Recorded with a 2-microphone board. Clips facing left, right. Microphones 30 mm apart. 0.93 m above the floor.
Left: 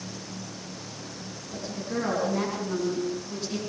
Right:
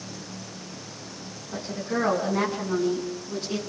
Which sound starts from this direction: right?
A woman speaking, at 1.5 s.